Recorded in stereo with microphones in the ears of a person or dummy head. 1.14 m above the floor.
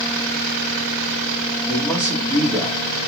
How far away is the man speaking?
About 1.8 m.